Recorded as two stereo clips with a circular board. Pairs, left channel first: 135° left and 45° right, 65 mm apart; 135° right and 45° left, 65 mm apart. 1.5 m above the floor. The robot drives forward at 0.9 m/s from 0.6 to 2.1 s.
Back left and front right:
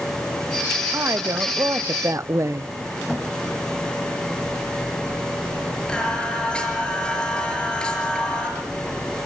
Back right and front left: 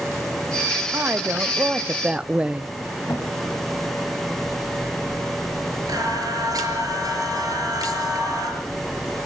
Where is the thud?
135° right, 4.5 m.